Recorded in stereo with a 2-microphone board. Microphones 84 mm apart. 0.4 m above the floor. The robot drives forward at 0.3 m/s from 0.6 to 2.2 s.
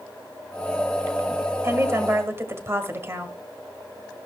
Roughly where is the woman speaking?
Right.